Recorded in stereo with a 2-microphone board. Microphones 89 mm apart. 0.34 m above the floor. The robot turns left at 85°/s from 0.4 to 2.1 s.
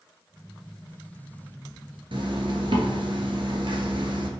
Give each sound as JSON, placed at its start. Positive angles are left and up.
{"t": 2.1, "sound": "a zipper", "side_deg": -75, "distance_m": 0.9}